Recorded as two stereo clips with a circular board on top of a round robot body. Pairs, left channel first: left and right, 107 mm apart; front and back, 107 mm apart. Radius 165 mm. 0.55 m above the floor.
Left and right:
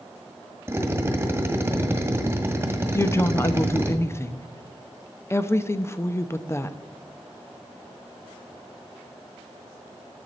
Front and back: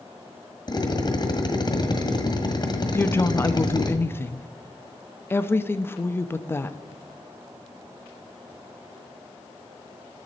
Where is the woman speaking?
50° left, 0.6 m.